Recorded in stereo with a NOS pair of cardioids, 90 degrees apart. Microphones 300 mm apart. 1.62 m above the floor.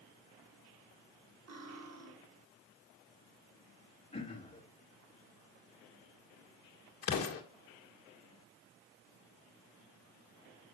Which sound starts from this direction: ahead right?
Cutlery clinking, at 1.5 s.